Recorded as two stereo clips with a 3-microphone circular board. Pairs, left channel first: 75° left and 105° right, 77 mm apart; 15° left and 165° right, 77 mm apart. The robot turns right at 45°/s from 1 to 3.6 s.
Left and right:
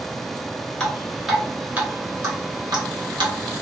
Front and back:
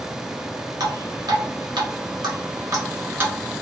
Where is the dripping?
155° left, 0.9 m; by 3.3 s 100° right, 0.9 m.